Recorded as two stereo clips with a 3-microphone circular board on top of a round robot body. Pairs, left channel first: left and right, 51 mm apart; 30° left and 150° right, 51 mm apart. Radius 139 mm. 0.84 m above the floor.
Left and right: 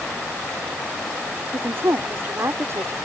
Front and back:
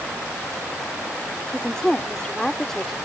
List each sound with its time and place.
1.5 s a woman speaking: 45° right; by 3.0 s 55° right